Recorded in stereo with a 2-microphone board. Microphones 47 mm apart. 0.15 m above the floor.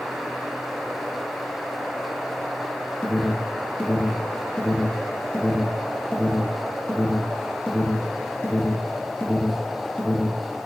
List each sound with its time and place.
3.0 s an alarm: 30° left (ahead or behind), 1.1 m